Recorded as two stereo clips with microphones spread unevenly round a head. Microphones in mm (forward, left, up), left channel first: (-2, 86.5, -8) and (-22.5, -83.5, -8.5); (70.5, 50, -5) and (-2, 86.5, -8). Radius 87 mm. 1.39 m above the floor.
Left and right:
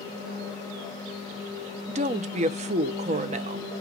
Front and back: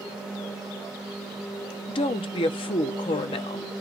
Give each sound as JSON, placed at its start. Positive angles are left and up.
{"t": 1.9, "sound": "a woman speaking", "azimuth_deg": -45, "distance_m": 0.7}